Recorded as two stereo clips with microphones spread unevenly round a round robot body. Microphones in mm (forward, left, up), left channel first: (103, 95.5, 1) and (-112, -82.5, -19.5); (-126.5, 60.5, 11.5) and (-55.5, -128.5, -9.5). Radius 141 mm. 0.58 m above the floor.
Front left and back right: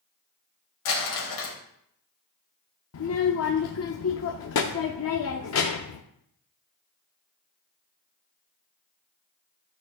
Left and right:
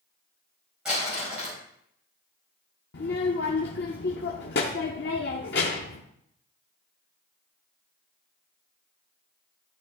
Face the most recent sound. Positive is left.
turn(degrees=70)